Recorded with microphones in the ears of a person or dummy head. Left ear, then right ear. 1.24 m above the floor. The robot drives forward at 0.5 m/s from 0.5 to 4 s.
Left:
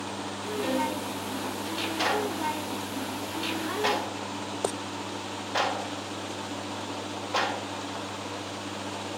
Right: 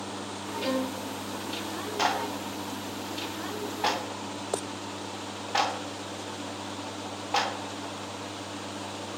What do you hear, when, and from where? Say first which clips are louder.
0.6 s a violin: left 2 dB; 30° right (ahead or behind), 1.6 m; by 1.0 s 35° right (ahead or behind), 1.5 m
2.0 s a clap: even; 35° right (ahead or behind), 2 m; by 7.5 s 25° right (ahead or behind), 3 m